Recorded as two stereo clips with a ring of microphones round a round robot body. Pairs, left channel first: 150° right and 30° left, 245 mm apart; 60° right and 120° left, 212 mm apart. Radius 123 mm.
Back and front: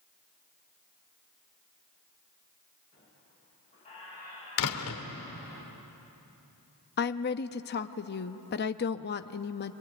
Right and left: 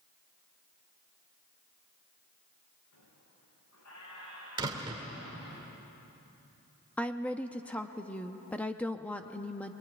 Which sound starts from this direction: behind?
A door slam, at 4.6 s.